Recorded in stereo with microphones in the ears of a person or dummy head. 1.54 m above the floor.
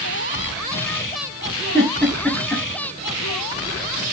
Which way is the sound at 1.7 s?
5° left (ahead or behind).